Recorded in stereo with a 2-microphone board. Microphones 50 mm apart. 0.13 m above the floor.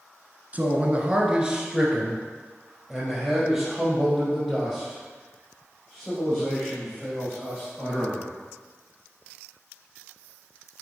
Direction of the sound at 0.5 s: 30° right (ahead or behind).